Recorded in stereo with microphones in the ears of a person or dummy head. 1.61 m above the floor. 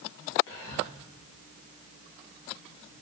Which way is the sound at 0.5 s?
60° left (ahead or behind).